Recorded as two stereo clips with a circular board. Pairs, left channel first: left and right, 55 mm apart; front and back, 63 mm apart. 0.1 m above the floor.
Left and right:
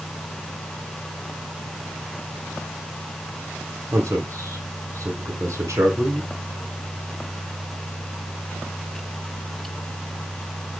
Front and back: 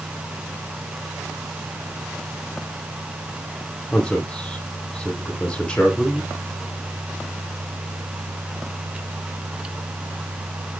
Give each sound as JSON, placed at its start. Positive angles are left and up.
{"t": 3.9, "sound": "a man speaking", "azimuth_deg": -75, "distance_m": 3.5}